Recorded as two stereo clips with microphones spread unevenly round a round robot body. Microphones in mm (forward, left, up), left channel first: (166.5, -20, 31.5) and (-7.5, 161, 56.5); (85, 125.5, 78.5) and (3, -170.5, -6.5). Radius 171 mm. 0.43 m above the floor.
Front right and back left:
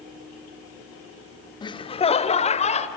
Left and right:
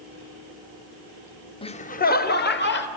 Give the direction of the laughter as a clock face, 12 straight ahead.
12 o'clock.